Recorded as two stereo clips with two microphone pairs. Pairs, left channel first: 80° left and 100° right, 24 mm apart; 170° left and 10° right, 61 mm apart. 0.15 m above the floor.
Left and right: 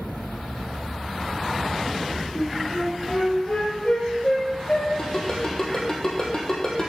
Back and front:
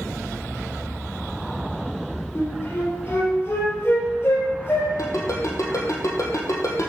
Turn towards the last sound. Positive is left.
turn(degrees=145)